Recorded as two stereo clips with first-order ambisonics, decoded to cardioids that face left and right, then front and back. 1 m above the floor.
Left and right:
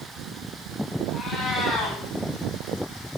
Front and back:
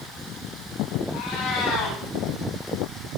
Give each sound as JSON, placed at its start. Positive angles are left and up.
{"t": 1.1, "sound": "a cat meowing", "azimuth_deg": 20, "distance_m": 9.0}